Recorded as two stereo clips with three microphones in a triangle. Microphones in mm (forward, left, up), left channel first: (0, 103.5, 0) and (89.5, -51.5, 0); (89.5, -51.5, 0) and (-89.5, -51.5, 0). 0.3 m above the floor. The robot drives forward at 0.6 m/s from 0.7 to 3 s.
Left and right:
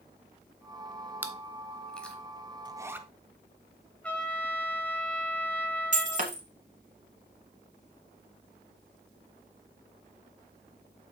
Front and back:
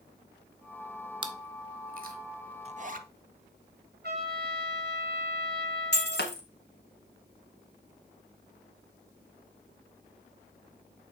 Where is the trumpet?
160° right, 1.7 m.